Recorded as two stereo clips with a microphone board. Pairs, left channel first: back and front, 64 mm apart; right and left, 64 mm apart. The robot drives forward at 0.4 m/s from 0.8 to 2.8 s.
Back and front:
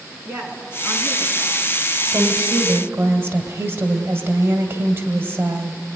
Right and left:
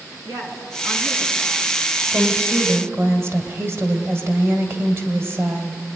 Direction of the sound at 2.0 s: 45° left.